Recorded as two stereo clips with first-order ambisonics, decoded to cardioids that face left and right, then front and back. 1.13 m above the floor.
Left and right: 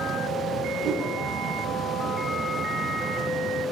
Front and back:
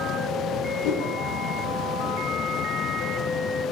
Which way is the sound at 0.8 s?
35° right.